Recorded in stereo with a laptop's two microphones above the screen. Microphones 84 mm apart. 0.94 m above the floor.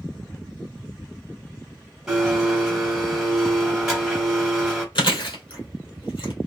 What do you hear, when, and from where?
2.1 s a blender: 5° right (ahead or behind), 1.1 m
5.0 s chewing: 85° left, 1.7 m